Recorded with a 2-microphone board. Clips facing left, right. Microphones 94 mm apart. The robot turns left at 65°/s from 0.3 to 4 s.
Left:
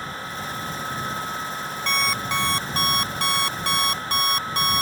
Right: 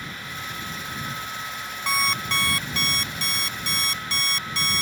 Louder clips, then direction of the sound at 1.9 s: Even; 165° right.